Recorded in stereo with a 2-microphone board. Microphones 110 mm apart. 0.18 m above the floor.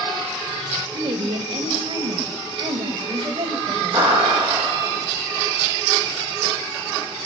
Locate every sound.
0.9 s a woman speaking: 60° right (ahead or behind), 2.5 m
3.9 s a clap: 55° right (ahead or behind), 7.5 m